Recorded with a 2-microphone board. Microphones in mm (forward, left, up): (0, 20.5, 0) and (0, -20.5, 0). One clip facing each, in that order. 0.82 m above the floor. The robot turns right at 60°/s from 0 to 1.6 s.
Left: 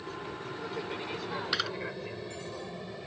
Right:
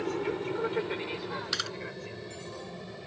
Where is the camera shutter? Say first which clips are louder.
Left 4 dB; 15° left (ahead or behind); by 1.7 s 10° left (ahead or behind).